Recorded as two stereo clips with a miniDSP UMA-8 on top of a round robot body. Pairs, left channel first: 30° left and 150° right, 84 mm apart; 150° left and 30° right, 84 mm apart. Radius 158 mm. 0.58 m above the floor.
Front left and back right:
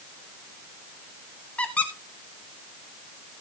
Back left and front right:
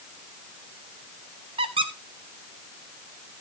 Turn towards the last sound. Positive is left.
turn(degrees=-45)